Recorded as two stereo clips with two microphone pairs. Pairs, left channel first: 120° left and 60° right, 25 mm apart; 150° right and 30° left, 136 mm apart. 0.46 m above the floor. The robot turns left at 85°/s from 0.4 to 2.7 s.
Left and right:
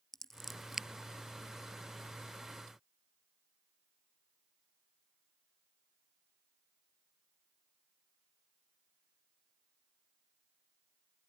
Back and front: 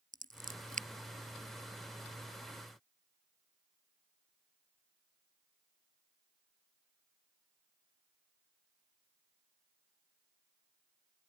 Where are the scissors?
45° left; by 0.9 s straight ahead.